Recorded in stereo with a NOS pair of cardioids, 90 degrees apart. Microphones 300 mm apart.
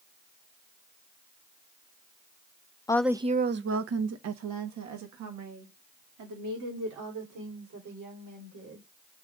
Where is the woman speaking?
15° left, 0.6 m; by 8.9 s 80° right, 5.5 m.